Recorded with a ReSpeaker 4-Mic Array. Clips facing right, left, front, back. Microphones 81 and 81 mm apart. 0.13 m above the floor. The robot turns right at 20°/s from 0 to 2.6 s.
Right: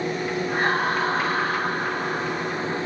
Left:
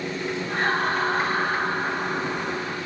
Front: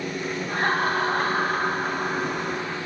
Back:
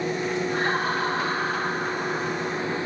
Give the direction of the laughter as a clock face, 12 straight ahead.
12 o'clock.